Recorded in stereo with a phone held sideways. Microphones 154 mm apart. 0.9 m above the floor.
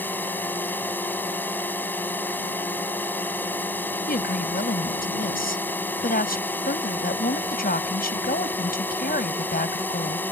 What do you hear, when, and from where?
0.0 s a drone: 10° left (ahead or behind)
4.1 s a woman speaking: 80° left